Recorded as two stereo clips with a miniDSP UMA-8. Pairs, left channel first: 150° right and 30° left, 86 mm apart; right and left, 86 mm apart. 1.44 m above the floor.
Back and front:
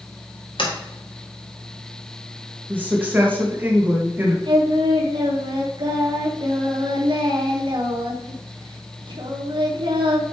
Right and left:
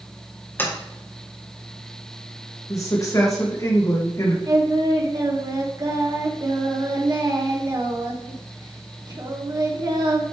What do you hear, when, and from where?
0.6 s a sliding door: 155° right, 2.0 m
2.7 s a woman speaking: 40° right, 2 m
4.5 s singing: 50° left, 1.6 m